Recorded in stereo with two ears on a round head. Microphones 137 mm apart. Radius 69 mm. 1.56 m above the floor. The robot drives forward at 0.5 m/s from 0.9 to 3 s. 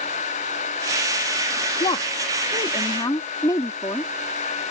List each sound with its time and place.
1.8 s a woman speaking: 35° left (ahead or behind); by 4.1 s 25° left (ahead or behind)